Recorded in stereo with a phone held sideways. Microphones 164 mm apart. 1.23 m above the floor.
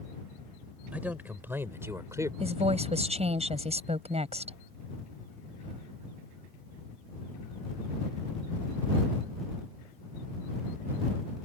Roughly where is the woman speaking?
Right.